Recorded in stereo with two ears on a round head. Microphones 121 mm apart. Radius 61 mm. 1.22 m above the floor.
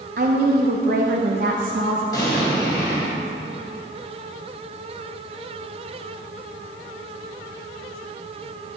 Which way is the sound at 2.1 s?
30° left (ahead or behind).